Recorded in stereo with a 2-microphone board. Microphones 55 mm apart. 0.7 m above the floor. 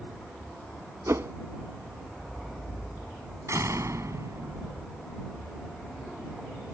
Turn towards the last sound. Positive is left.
turn(degrees=-65)  # may be behind; listen again after turning